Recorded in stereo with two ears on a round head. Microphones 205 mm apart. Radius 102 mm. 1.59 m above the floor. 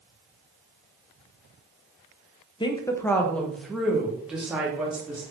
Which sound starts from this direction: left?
A woman speaking, at 2.6 s.